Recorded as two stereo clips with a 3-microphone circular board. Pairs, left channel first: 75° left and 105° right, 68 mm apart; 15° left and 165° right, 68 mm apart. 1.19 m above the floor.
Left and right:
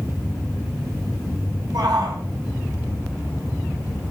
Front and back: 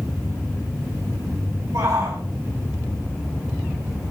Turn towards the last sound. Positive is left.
turn(degrees=-125)